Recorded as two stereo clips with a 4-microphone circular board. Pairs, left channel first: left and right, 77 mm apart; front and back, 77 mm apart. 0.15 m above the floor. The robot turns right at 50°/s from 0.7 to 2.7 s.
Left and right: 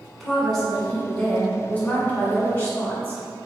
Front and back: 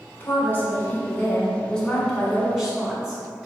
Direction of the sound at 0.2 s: 10° left.